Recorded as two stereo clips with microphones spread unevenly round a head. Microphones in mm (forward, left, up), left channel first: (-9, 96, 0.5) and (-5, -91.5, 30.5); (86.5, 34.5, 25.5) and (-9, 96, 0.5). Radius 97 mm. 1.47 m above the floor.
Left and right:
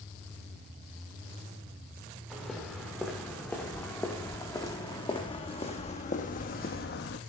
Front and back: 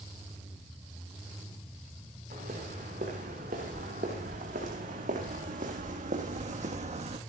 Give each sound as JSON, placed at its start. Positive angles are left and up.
{"t": 2.3, "sound": "footsteps", "azimuth_deg": -175, "distance_m": 6.0}